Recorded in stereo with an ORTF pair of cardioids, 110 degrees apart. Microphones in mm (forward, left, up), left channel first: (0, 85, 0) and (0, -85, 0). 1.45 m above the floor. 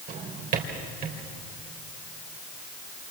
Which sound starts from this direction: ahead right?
A drawer, at 0.1 s.